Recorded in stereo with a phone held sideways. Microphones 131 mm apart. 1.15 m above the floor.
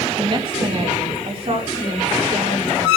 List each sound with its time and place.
0.2 s a woman speaking: 35° right (ahead or behind), 1.9 m; by 2.9 s 55° right (ahead or behind), 5.5 m